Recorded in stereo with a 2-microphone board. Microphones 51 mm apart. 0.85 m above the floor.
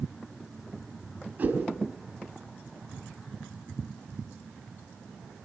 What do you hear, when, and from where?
1.4 s a whoosh: 30° right (ahead or behind), 4 m